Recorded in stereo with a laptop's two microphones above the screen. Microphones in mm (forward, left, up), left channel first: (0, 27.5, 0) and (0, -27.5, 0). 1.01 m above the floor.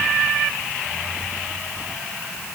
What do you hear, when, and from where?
Only background noise.